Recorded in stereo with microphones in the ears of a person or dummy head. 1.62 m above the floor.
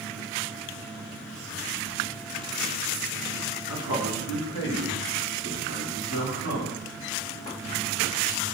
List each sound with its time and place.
3.7 s a man speaking: 75° left (ahead or behind), 2 m; by 6.8 s 50° left (ahead or behind), 3.5 m